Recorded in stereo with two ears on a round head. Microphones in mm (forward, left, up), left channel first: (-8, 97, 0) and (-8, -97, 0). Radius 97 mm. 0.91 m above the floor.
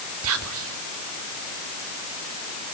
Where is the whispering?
70° right (ahead or behind), 2 m.